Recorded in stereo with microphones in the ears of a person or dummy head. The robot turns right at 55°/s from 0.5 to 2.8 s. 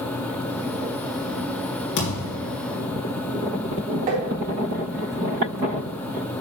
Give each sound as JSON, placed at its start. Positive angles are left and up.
{"t": 2.0, "sound": "a thud", "azimuth_deg": 90, "distance_m": 3.0}
{"t": 4.1, "sound": "tapping", "side_deg": -45, "distance_m": 1.9}